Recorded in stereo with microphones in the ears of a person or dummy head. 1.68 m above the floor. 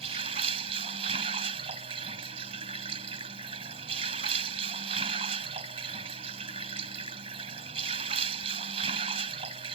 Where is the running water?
35° right (ahead or behind).